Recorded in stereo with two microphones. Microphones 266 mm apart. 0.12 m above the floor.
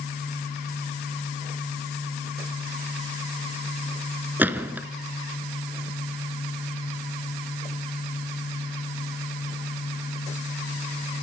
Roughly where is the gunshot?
Centre.